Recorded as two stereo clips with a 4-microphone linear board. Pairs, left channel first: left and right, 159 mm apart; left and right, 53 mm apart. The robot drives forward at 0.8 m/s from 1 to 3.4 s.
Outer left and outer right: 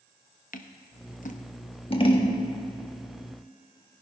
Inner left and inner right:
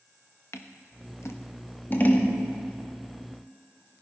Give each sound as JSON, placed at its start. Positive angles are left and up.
{"t": 0.5, "sound": "scissors", "side_deg": 60, "distance_m": 0.8}